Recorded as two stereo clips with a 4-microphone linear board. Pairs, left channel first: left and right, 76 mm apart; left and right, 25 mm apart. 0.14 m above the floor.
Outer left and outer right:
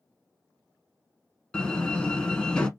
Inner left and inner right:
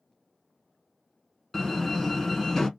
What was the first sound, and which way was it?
A door slam, 15° left (ahead or behind).